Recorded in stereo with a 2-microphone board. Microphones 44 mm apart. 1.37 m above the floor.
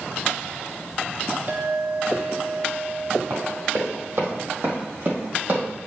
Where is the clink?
50° right (ahead or behind), 1.2 m.